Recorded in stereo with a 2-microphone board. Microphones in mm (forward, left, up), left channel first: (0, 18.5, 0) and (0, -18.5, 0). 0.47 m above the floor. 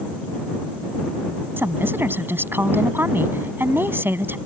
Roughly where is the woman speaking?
Right.